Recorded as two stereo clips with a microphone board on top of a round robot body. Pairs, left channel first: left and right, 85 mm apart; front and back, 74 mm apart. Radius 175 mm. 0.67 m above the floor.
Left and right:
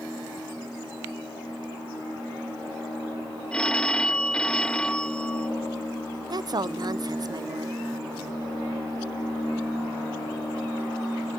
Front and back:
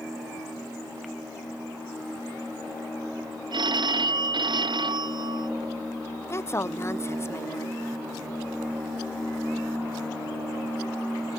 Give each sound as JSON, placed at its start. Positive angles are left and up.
{"t": 3.5, "sound": "a phone ringing", "azimuth_deg": 170}
{"t": 6.3, "sound": "a woman speaking", "azimuth_deg": -55}